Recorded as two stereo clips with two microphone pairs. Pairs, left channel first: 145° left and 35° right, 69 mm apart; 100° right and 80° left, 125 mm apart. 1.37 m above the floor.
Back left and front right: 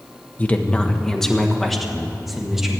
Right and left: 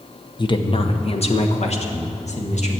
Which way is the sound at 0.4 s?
150° right.